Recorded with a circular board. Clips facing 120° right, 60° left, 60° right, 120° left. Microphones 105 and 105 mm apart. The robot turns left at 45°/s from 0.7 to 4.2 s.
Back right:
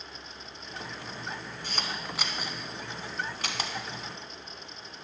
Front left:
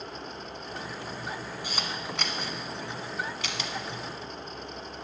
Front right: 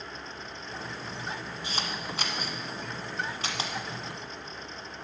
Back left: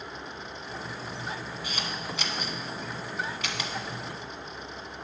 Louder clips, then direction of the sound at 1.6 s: Even, front right 1 dB; 15° right.